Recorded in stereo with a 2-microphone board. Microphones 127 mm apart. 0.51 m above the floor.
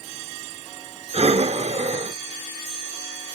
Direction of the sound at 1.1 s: 55° right (ahead or behind).